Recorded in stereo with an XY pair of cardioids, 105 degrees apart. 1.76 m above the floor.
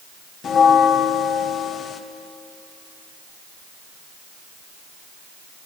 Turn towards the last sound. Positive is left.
turn(degrees=55)